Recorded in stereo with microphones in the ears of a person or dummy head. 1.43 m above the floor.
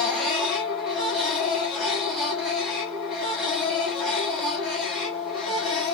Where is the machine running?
5° right (ahead or behind), 1.3 m.